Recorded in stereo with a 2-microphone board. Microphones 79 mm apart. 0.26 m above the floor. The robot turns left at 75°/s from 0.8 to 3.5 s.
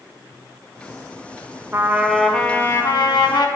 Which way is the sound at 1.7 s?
140° right.